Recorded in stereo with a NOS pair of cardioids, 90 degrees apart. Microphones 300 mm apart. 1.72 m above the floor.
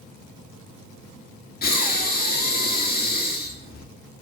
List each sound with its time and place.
1.6 s breathing: 30° left, 1.8 m